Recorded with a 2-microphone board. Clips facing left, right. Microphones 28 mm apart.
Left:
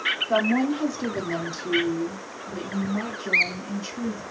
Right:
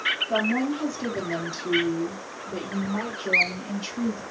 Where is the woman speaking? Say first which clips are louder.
Left 2 dB; 35° left (ahead or behind), 1.2 m; by 4.2 s 55° right (ahead or behind), 2 m.